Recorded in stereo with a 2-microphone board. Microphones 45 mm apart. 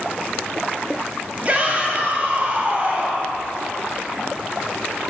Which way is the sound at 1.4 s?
30° right (ahead or behind).